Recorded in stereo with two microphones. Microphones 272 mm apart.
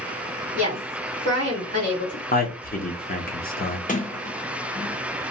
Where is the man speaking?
35° left (ahead or behind), 0.6 m.